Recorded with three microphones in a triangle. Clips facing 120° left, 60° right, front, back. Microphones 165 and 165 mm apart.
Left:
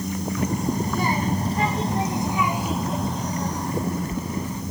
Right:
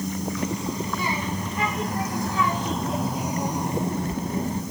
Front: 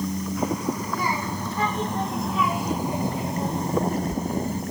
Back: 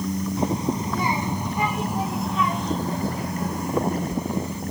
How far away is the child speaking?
About 1.7 m.